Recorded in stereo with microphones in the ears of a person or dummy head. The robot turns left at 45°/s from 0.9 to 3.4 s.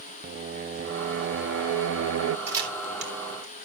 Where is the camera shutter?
15° right (ahead or behind), 3.5 m; by 3.7 s 60° right (ahead or behind), 3.5 m.